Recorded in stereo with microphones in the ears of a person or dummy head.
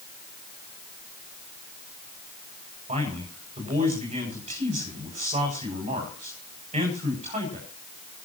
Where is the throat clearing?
I don't hear throat clearing.